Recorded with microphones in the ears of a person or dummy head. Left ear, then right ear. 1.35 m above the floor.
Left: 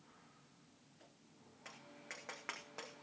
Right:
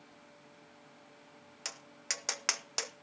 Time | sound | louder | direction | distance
1.6 | tapping | right 13 dB | 75° right (ahead or behind) | 0.9 m